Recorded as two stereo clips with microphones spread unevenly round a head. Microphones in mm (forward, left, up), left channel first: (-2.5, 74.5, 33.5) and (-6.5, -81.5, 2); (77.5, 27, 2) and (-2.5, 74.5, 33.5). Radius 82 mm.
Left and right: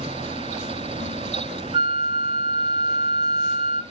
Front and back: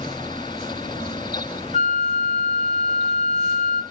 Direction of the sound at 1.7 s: 25° right.